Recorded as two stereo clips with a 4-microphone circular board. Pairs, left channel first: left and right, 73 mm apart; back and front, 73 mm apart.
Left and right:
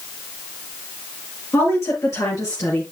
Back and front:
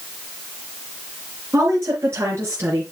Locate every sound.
1.5 s a woman speaking: 45° left, 4 m; by 2.8 s 55° left, 3.5 m